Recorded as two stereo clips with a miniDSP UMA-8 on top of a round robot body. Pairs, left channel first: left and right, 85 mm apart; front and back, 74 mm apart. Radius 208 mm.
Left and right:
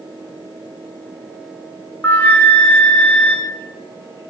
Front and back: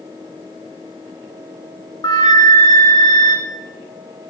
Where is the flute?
20° left, 3.5 m.